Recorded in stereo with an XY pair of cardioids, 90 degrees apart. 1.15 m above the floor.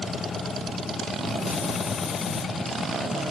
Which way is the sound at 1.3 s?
65° left.